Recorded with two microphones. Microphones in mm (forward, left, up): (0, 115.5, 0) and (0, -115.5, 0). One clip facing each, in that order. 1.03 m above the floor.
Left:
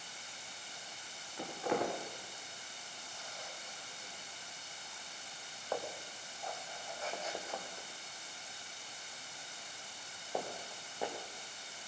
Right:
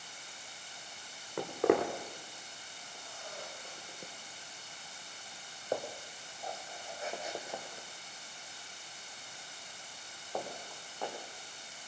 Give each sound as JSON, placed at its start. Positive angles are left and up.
{"t": 1.4, "sound": "footsteps", "side_deg": -70, "distance_m": 3.0}